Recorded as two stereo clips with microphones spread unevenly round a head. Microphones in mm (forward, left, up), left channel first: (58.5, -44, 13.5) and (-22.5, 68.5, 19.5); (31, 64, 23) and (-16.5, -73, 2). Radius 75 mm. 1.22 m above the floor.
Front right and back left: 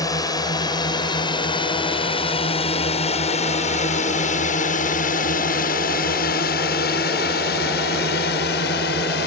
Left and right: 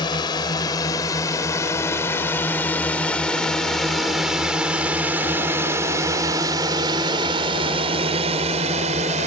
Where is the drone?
10° left; by 9.3 s 70° right.